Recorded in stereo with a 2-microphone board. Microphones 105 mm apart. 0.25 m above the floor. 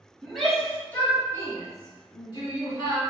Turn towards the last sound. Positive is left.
turn(degrees=55)  # may be behind; listen again after turning